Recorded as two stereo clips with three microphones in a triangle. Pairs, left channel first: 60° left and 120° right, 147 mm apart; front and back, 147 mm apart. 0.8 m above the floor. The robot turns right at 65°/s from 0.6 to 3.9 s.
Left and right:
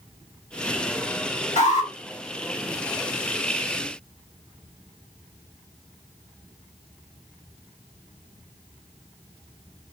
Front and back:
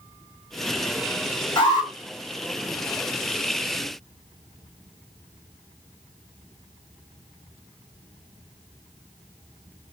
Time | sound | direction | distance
1.6 | an alarm | 45° left | 1.5 m